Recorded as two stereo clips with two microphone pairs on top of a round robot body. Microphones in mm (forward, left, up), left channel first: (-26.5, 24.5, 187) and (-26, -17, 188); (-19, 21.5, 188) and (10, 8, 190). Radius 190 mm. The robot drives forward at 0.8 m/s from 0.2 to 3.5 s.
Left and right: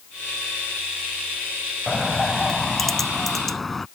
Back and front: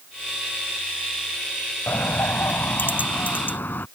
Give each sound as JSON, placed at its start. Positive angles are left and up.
{"t": 1.9, "sound": "a bird", "azimuth_deg": 175}